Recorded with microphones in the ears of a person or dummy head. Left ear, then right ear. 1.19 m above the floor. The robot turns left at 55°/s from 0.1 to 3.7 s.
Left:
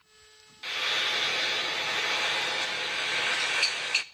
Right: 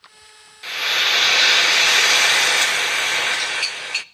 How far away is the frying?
About 0.5 m.